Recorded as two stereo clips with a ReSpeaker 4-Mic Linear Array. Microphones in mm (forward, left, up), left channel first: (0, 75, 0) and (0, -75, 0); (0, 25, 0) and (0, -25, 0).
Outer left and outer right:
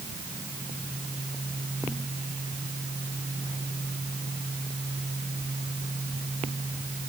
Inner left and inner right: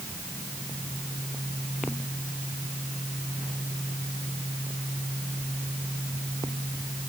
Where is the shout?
No shout in this recording.